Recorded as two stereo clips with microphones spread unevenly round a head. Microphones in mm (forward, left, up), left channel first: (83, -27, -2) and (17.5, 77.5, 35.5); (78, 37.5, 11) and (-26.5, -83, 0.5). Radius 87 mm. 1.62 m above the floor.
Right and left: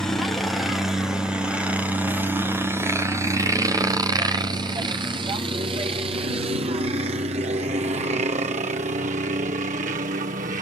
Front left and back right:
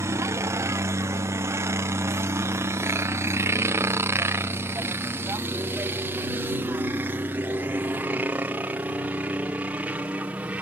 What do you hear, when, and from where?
0.0 s a helicopter: 95° right; by 10.6 s 150° left